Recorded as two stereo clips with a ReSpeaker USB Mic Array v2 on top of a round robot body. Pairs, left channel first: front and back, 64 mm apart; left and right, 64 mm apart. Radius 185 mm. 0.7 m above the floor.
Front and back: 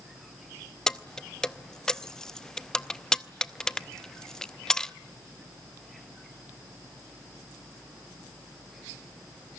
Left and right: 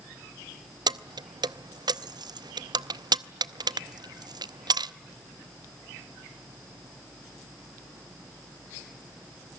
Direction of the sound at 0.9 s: 80° right.